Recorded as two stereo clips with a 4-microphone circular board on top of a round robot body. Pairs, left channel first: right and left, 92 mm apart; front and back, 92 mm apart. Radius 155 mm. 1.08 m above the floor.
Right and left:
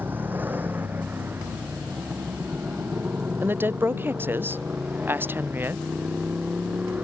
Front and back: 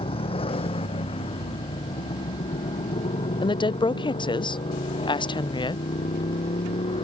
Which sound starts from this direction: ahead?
A motorcycle, at 0.0 s.